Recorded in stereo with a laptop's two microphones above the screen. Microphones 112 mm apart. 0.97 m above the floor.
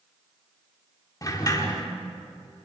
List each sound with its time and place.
1.2 s a sliding door: 30° left (ahead or behind), 2.5 m